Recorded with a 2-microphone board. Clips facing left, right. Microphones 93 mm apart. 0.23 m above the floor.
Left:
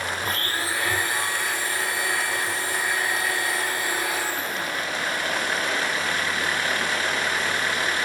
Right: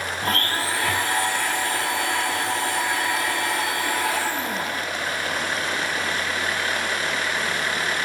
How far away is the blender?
About 7 m.